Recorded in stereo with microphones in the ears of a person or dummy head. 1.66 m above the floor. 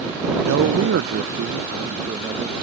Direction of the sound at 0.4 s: 65° right (ahead or behind).